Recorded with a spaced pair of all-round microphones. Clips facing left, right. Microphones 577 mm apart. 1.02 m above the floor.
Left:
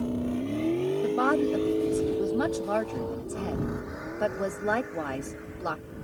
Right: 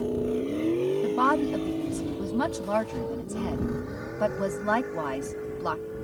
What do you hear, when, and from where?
0.0 s a vehicle: 30° left (ahead or behind); by 6.0 s 65° right (ahead or behind)
1.0 s a woman speaking: 25° right (ahead or behind)